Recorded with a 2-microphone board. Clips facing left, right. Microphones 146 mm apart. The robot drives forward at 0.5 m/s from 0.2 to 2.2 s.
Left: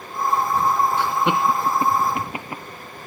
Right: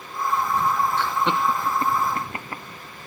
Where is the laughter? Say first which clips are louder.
Left 3 dB; 10° left (ahead or behind); by 2.6 s 15° left (ahead or behind).